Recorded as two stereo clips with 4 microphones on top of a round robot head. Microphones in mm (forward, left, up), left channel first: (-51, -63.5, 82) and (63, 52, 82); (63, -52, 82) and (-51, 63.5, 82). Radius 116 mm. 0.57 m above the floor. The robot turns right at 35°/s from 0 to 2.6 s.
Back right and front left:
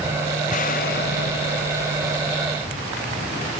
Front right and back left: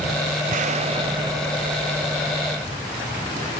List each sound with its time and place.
0.5 s an explosion: straight behind, 0.7 m; by 3.0 s 110° right, 0.7 m